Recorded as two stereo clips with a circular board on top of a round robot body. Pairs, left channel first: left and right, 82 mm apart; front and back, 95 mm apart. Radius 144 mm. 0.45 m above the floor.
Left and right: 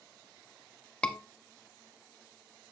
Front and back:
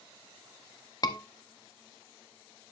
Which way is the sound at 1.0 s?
15° left.